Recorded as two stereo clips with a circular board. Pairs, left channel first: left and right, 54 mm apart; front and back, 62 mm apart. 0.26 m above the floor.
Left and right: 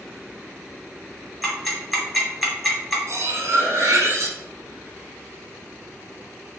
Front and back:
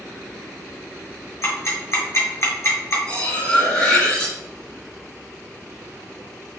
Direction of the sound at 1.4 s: 5° right.